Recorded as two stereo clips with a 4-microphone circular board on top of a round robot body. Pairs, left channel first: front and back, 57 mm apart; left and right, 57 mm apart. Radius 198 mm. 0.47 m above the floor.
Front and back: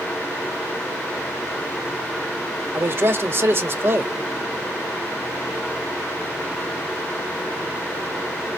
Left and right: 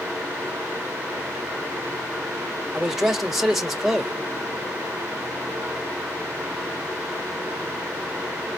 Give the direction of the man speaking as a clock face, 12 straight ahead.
6 o'clock.